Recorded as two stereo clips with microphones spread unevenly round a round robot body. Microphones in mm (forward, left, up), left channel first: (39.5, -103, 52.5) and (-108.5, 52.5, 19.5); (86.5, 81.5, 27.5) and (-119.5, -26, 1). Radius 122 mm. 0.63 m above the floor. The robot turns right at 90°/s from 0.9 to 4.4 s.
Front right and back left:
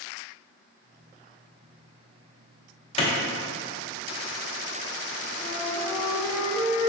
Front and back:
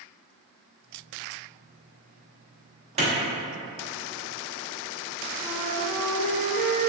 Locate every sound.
3.0 s a clap: 105° right, 0.8 m; by 3.1 s 95° right, 0.8 m
5.4 s a flute: 150° right, 0.6 m